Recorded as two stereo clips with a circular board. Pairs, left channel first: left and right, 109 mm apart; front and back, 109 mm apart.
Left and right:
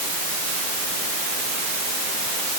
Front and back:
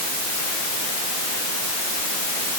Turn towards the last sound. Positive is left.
No sound to turn to.